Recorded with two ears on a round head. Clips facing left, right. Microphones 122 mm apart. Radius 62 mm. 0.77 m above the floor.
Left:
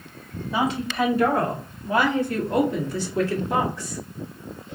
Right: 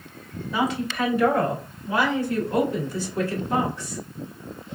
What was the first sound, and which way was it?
A woman speaking, 25° left (ahead or behind).